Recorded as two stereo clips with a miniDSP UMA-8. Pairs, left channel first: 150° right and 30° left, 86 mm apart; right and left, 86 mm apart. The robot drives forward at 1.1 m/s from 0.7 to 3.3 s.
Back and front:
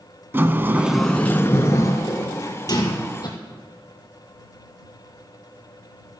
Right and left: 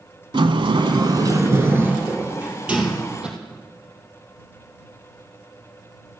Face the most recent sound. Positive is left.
turn(degrees=170)